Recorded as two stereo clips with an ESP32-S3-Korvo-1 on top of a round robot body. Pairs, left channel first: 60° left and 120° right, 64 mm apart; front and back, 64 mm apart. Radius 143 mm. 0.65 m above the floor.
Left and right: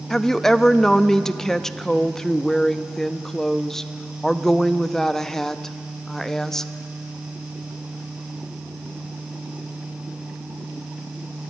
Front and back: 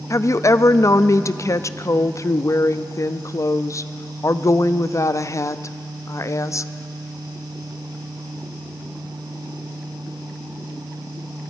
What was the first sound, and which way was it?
A woman speaking, 25° right.